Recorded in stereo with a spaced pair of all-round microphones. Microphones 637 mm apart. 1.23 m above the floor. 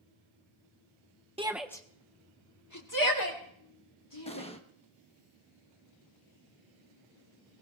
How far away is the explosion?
About 1.0 m.